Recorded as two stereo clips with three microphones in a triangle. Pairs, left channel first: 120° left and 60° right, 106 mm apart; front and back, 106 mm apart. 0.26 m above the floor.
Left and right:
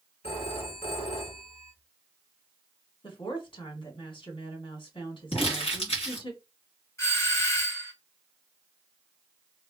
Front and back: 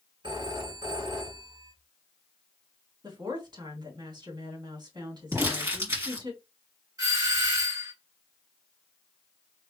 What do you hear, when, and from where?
0.2 s a phone ringing: 135° left, 1.9 m
3.0 s a woman speaking: 145° left, 1.9 m
5.3 s crumpling: 120° left, 2.5 m
7.0 s a doorbell: 160° left, 2 m